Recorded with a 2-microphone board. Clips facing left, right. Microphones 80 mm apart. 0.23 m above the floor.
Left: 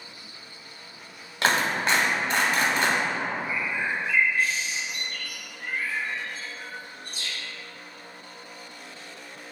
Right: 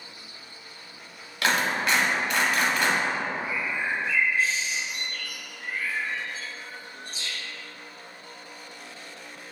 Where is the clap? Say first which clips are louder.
Left 1 dB; 30° left (ahead or behind), 0.9 m.